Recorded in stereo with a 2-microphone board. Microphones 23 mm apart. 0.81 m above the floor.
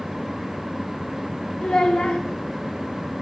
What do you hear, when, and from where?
1.6 s a child speaking: 50° left (ahead or behind), 1.5 m